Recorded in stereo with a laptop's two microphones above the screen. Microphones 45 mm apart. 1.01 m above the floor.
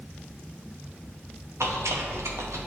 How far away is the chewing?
About 0.8 m.